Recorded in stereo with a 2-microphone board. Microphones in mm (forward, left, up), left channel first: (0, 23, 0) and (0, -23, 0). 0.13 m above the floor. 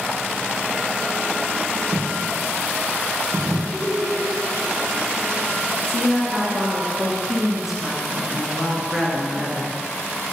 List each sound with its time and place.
1.9 s a dropped coin: 10° left (ahead or behind), 2.5 m
3.7 s laughter: 15° left (ahead or behind), 1.2 m
5.9 s a woman speaking: 5° right (ahead or behind), 1.8 m